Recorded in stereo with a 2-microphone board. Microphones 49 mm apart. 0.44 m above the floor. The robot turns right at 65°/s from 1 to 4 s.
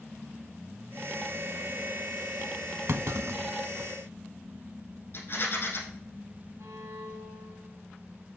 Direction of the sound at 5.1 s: 50° left (ahead or behind).